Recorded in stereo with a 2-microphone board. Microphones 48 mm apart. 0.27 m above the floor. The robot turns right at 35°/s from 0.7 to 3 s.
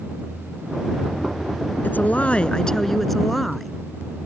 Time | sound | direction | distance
1.8 | a woman speaking | 135° left | ?